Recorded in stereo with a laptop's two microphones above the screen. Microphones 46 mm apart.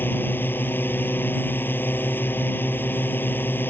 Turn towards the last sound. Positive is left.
turn(degrees=45)  # may be behind; listen again after turning